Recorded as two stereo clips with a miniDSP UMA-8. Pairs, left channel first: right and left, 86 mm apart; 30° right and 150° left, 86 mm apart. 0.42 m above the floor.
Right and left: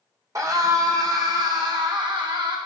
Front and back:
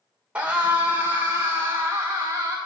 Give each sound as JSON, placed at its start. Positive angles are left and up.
{"t": 0.3, "sound": "a scream", "azimuth_deg": 85, "distance_m": 1.7}